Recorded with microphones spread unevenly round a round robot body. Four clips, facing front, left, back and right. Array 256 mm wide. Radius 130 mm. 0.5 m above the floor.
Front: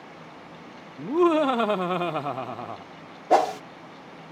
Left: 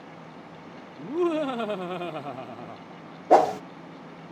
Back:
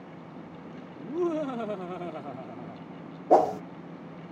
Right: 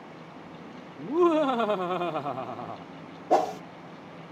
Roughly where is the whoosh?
Behind left.